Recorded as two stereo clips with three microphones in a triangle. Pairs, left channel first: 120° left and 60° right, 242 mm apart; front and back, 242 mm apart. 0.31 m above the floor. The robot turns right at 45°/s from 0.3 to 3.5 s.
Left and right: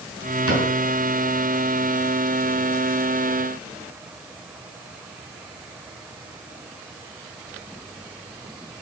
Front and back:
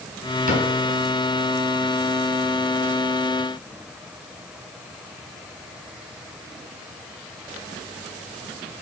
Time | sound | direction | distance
0.5 | a cupboard door | 130° left | 4 m